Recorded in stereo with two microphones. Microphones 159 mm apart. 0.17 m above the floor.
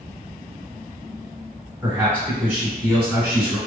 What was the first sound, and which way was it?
A man speaking, 10° right (ahead or behind).